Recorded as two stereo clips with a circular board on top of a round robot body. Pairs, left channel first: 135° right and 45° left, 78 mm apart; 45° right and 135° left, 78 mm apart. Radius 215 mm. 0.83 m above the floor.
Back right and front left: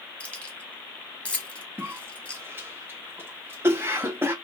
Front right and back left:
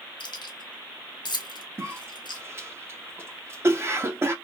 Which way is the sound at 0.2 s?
60° right.